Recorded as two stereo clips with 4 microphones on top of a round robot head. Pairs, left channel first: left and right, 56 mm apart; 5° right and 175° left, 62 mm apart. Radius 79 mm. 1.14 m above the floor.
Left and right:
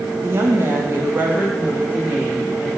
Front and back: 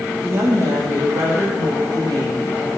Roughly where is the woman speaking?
Behind right.